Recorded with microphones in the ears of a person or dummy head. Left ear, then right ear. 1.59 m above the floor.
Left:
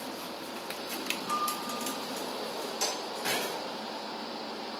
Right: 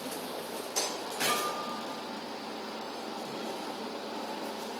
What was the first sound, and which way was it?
A piano, 25° right (ahead or behind).